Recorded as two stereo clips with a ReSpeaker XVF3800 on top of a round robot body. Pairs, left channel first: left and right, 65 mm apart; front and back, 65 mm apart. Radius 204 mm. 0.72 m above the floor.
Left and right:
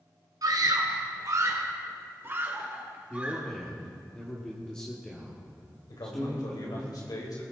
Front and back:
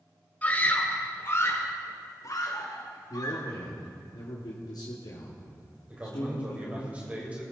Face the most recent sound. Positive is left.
turn(degrees=110)